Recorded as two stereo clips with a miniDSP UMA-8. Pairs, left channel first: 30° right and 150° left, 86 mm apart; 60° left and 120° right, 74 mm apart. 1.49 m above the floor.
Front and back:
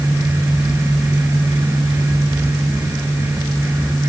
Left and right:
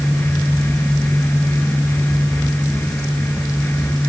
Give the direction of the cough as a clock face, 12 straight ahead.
No cough in this recording.